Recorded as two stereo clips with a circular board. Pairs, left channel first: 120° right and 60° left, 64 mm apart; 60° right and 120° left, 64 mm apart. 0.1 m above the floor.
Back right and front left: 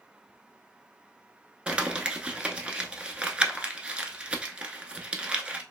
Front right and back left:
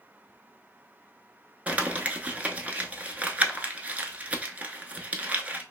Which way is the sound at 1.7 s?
105° left.